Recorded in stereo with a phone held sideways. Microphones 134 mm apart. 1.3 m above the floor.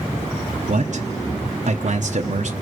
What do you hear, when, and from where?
0.7 s a man speaking: 65° right (ahead or behind), 0.8 m